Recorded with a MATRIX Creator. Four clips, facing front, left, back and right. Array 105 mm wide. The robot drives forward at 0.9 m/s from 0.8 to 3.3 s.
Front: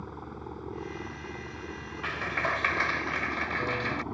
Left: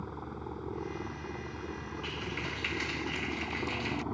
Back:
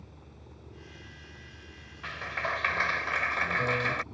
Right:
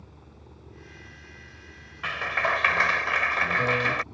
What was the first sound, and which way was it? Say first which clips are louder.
A helicopter: left 11 dB, front 13 dB; 40° left.